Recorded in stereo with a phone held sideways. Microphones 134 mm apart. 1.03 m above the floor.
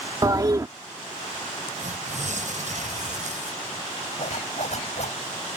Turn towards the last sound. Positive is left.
turn(degrees=60)  # may be behind; listen again after turning